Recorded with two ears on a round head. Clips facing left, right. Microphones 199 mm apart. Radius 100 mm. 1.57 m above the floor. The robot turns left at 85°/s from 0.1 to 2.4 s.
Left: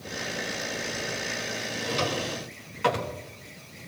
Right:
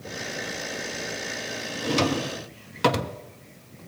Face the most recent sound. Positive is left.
turn(degrees=-50)  # may be behind; listen again after turning